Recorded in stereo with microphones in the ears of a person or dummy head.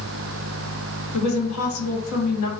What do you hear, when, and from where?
1.1 s a woman speaking: 75° left (ahead or behind), 1.2 m